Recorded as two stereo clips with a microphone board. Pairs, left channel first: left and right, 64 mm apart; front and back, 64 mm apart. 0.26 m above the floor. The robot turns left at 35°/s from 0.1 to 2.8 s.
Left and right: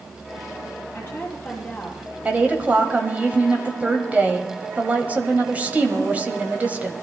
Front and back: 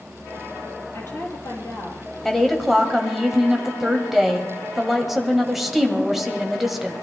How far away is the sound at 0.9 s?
About 5 m.